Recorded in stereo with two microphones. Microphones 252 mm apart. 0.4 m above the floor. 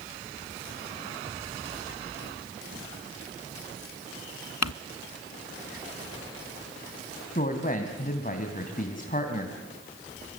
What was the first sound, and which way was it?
Crumpling, 80° left.